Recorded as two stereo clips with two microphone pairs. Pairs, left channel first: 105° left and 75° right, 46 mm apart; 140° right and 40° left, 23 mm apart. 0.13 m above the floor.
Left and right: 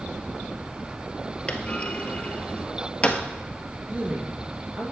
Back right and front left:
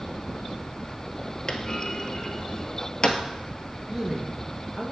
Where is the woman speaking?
25° right, 2 m.